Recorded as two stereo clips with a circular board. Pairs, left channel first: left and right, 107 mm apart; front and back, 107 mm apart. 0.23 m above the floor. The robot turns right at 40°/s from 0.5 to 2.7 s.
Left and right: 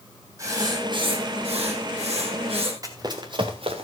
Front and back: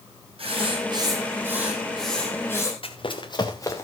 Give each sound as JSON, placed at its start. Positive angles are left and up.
{"t": 0.4, "sound": "writing", "azimuth_deg": -150, "distance_m": 4.0}
{"t": 2.8, "sound": "running footsteps", "azimuth_deg": -35, "distance_m": 2.5}